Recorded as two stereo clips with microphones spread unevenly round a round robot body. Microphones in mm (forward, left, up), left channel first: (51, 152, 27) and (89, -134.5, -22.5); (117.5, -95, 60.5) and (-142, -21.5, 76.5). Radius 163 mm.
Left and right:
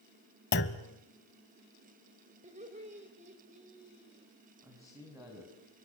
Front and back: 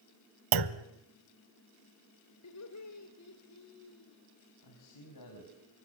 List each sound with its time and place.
0.5 s a clunk: 155° left, 0.8 m
2.4 s laughter: 20° right, 3 m
4.6 s a man speaking: 5° right, 5.5 m